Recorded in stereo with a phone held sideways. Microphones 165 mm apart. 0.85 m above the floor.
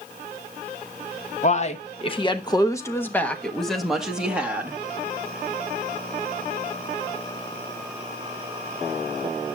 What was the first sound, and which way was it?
A man speaking, 45° left (ahead or behind).